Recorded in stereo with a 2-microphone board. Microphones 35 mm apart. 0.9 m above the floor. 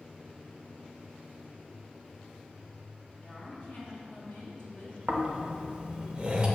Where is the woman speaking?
40° left (ahead or behind), 2.0 m; by 5.0 s 65° left (ahead or behind), 2.5 m.